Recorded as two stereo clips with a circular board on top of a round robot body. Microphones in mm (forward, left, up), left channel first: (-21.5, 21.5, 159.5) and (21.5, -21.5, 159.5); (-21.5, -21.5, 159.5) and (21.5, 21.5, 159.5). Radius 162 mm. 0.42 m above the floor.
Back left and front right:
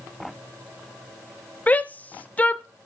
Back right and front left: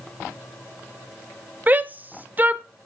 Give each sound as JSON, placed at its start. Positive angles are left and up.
{"t": 1.7, "sound": "a shout", "azimuth_deg": 85, "distance_m": 0.9}